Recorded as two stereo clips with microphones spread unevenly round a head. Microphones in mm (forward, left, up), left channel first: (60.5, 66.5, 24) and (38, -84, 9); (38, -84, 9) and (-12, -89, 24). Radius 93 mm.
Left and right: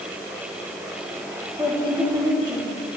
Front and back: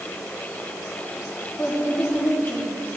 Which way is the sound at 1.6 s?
35° right.